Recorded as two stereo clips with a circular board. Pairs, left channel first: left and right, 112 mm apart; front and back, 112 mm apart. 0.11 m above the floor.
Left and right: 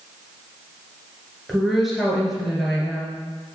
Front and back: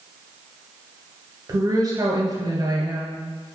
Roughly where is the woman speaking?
Behind.